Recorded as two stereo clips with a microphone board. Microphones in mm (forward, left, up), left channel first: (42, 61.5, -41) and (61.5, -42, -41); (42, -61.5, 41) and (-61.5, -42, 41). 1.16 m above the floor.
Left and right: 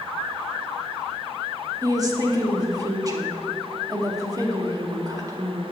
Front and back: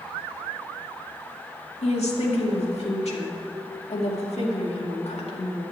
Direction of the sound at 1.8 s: 25° right.